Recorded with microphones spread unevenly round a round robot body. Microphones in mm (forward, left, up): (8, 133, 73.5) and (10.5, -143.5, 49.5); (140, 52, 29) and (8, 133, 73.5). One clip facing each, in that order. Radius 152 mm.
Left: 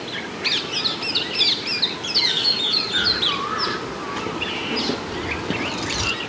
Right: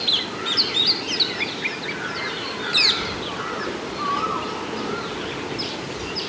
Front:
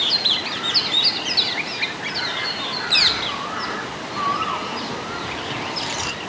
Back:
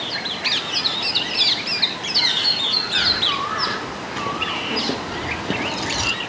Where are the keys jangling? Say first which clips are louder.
Even, back 1 dB; 155° left, 3 m; by 6.1 s 85° left, 1.0 m.